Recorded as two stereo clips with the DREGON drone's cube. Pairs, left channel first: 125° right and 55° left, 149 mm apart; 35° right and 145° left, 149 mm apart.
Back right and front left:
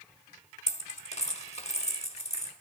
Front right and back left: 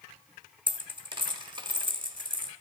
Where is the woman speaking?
No woman speaking in this recording.